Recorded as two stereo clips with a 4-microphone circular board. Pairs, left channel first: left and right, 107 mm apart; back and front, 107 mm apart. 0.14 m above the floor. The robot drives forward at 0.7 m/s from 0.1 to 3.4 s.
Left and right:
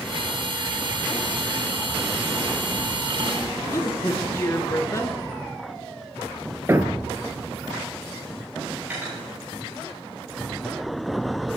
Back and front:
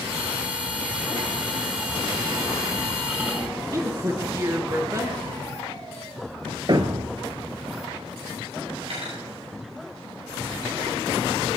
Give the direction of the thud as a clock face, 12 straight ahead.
1 o'clock.